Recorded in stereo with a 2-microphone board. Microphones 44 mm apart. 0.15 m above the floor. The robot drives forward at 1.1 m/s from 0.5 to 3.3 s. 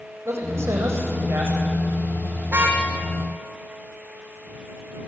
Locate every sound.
0.2 s a man speaking: 70° right (ahead or behind), 7.5 m; by 1.6 s 65° right (ahead or behind), 7.5 m
2.5 s a car horn: 50° right (ahead or behind), 5 m